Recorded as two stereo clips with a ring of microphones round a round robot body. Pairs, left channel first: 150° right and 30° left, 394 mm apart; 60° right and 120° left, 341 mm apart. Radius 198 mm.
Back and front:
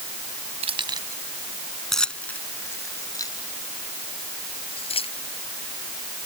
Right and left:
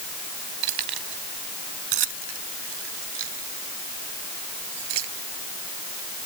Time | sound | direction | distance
0.6 | keys jangling | 105° left | ?